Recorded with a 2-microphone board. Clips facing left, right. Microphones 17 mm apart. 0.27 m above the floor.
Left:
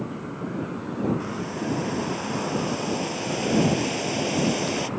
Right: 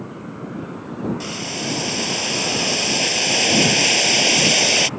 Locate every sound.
1.2 s boiling: 80° right